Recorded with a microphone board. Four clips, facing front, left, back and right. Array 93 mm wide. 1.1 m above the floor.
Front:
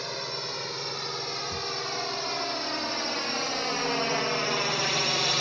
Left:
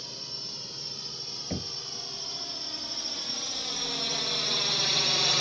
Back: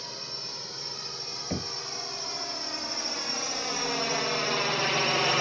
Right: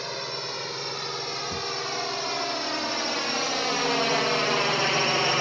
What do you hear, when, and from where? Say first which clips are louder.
0.0 s a drone: right 13 dB, front 8 dB; 60° right; by 5.4 s 120° right
1.5 s knocking: even, even; 155° left